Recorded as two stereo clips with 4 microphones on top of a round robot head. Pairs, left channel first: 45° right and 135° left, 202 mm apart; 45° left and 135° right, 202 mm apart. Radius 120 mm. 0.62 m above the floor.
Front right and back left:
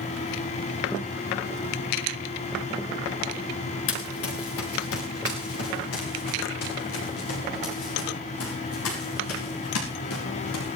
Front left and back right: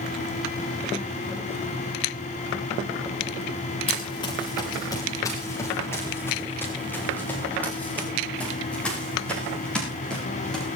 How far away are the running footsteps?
About 4 m.